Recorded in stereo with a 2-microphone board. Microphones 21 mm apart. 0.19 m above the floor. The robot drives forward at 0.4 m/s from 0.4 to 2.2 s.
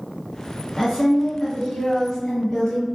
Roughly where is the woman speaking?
Left.